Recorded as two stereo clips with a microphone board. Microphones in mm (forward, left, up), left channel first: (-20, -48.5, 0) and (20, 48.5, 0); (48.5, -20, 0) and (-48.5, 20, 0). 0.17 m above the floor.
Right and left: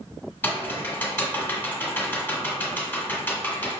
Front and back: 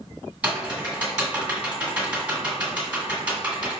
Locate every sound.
0.4 s typing on a keyboard: 145° right, 1.3 m